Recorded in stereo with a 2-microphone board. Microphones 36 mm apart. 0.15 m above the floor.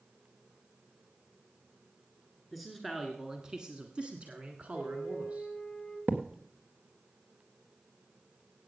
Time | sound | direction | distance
2.5 | a man speaking | centre (ahead or behind) | 1.9 m
4.7 | a flute | 40° left (ahead or behind) | 3 m
6.1 | a thud | 70° right (ahead or behind) | 1.9 m